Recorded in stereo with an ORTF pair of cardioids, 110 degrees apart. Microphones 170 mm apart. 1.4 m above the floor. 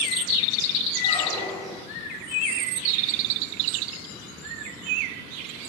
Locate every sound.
0.9 s a squeak: 10° left, 0.8 m